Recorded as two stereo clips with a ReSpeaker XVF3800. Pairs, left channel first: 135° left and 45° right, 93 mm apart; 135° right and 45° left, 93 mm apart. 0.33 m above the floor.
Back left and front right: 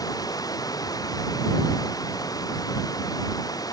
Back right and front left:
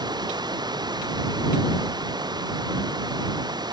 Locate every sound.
0.0 s running water: 85° left